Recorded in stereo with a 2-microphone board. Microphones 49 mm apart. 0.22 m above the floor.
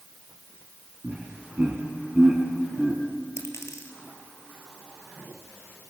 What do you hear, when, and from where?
1.0 s laughter: 40° right (ahead or behind), 2.5 m; by 3.0 s 15° right (ahead or behind), 4 m
3.4 s a dropped coin: 80° left, 2.5 m